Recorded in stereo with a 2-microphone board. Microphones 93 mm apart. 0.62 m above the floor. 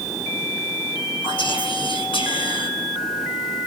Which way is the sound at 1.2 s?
70° left (ahead or behind).